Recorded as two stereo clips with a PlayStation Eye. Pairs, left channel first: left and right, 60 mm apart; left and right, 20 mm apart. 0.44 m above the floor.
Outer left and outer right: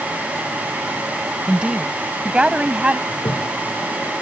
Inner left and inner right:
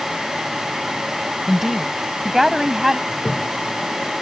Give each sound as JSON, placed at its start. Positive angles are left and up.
{"t": 1.5, "sound": "a woman speaking", "side_deg": -20}
{"t": 3.1, "sound": "a toilet flushing", "side_deg": 80}